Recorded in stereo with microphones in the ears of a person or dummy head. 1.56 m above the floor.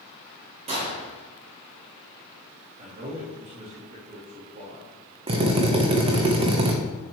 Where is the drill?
35° right (ahead or behind), 1.2 m.